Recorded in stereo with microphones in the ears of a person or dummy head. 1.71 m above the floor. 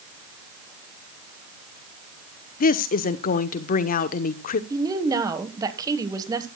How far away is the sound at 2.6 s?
About 1.0 m.